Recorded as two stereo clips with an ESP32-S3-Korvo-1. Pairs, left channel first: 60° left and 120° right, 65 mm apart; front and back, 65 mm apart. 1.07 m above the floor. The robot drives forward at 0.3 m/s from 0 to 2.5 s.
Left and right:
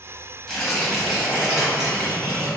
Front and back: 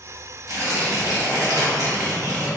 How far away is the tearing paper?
About 0.9 m.